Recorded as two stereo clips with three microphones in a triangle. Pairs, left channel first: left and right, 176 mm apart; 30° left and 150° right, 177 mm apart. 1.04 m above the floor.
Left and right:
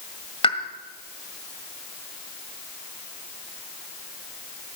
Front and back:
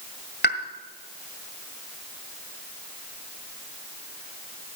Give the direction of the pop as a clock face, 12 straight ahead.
11 o'clock.